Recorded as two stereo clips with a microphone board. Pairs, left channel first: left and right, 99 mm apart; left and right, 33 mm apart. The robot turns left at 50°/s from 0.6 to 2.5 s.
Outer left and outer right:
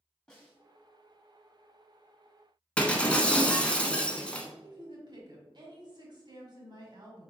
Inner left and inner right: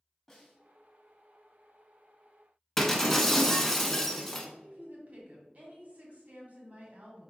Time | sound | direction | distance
0.3 | a snare drum | 10° left (ahead or behind) | 1.5 m
2.8 | breaking glass | 10° left (ahead or behind) | 0.7 m
4.6 | a woman speaking | 45° right (ahead or behind) | 1.7 m